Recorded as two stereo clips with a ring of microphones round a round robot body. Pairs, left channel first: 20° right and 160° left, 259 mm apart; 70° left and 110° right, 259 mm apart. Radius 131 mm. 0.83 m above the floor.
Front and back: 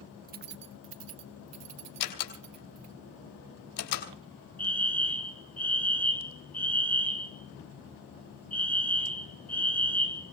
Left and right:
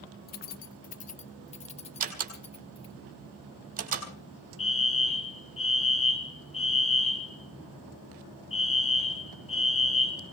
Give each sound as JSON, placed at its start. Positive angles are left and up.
{"t": 0.3, "sound": "keys jangling", "azimuth_deg": 110, "distance_m": 0.5}
{"t": 2.0, "sound": "a door slam", "azimuth_deg": -50, "distance_m": 4.0}
{"t": 4.6, "sound": "a fire alarm", "azimuth_deg": 55, "distance_m": 1.8}